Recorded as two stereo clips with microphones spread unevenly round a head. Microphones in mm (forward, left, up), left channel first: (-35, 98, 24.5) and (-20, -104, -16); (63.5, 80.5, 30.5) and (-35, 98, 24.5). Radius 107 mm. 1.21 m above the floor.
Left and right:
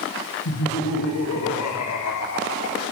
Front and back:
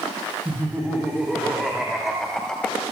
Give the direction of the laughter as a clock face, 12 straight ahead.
9 o'clock.